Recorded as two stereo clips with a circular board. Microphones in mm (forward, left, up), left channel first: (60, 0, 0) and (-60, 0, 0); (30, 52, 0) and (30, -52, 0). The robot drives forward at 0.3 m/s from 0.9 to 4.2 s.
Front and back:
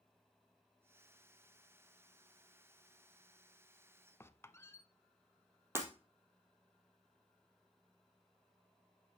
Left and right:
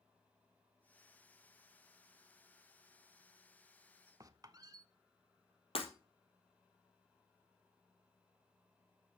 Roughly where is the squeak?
Ahead right.